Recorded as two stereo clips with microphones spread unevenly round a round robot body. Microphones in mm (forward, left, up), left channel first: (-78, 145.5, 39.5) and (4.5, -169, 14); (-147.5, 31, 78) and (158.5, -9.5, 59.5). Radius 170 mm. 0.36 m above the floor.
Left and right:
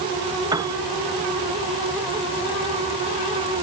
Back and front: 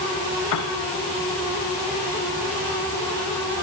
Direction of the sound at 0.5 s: 155° right.